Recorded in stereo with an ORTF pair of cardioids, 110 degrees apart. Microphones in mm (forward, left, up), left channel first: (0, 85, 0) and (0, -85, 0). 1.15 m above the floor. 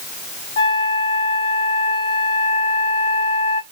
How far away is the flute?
About 1.7 m.